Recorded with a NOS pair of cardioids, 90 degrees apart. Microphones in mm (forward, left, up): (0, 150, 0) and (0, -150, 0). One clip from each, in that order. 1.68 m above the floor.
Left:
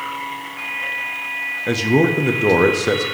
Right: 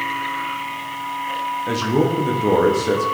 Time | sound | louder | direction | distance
1.7 | a man speaking | left 4 dB | 25° left | 1.0 m